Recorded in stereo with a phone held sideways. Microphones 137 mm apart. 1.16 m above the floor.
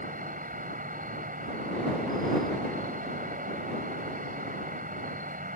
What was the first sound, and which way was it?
An insect, 80° right.